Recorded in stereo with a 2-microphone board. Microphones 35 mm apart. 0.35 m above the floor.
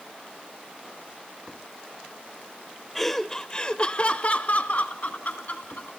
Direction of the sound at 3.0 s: 5° left (ahead or behind).